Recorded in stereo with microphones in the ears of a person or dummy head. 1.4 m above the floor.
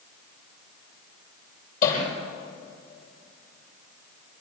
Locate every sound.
1.8 s hammering: 65° left (ahead or behind), 9 m